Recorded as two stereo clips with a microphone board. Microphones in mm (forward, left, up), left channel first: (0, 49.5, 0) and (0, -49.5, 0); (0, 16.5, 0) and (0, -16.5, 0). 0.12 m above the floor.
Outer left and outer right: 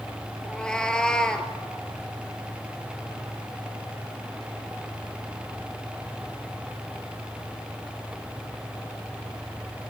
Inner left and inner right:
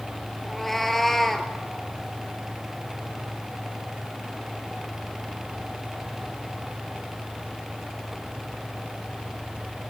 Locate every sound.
0.4 s a cat meowing: 10° left (ahead or behind), 0.9 m